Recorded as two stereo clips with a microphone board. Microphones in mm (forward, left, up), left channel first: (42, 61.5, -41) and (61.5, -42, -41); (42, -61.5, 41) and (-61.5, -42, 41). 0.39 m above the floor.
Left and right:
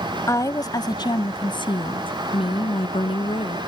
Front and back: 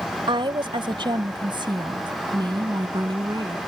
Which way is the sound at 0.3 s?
150° left.